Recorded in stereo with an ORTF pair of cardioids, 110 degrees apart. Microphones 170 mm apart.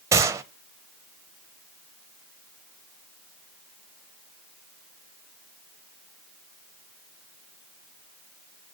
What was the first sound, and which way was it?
A gunshot, 15° right.